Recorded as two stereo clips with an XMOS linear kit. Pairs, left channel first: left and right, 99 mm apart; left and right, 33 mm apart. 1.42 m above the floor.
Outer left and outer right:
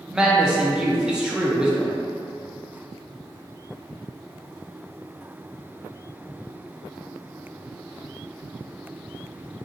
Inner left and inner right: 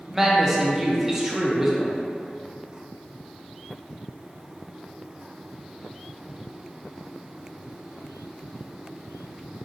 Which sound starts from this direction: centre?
A man speaking, at 0.1 s.